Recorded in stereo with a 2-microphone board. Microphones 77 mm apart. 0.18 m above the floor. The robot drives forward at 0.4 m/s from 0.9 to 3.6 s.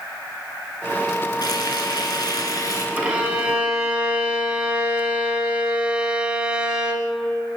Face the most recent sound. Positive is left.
turn(degrees=-15)  # may be behind; listen again after turning